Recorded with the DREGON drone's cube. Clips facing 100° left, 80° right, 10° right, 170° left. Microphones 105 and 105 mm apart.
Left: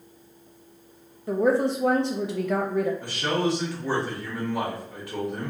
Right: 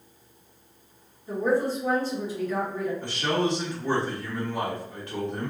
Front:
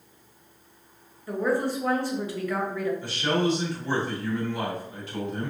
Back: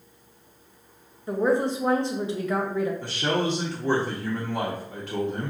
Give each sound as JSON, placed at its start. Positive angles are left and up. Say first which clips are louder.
{"t": 1.3, "sound": "a woman speaking", "louder": "left 3 dB, back 3 dB", "azimuth_deg": 105, "distance_m": 0.8}
{"t": 3.0, "sound": "a man speaking", "louder": "even, front 1 dB", "azimuth_deg": 180, "distance_m": 1.5}